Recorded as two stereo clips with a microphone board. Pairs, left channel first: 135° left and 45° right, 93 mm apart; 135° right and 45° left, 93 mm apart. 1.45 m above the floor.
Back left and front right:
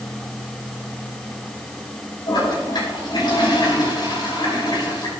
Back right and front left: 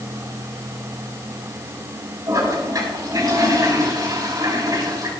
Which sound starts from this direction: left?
A toilet flushing, at 2.3 s.